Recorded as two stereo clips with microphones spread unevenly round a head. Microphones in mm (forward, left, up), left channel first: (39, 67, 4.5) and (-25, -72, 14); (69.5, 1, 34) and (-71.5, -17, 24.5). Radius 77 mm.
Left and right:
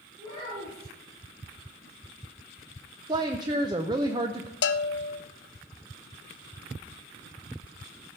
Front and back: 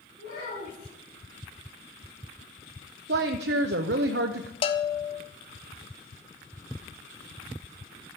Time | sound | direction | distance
0.2 | a child speaking | 5° right | 7 m
3.1 | a woman speaking | straight behind | 0.6 m
4.6 | a bell | 60° left | 0.6 m